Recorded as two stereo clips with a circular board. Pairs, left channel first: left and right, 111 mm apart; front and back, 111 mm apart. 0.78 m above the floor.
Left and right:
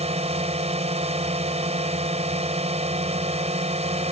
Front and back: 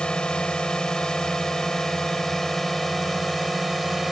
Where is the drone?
80° right; by 4.1 s 90° right.